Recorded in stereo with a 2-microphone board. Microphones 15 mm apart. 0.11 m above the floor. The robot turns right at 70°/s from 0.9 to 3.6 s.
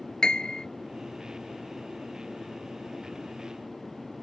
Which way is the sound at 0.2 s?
50° left (ahead or behind).